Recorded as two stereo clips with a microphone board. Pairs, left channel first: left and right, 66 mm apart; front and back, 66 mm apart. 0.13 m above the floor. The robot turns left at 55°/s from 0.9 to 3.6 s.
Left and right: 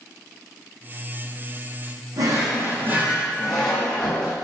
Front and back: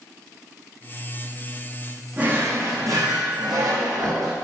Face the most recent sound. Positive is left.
turn(degrees=170)